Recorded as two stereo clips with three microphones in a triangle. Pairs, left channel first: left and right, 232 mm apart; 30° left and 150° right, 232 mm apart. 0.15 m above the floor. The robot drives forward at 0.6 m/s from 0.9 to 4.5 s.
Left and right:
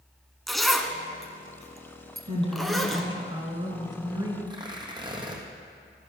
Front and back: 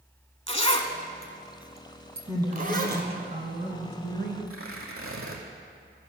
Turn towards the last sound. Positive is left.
turn(degrees=-160)